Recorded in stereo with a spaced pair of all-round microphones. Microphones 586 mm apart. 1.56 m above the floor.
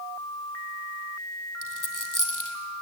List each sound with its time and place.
1.6 s a dropped coin: 30° left (ahead or behind), 3 m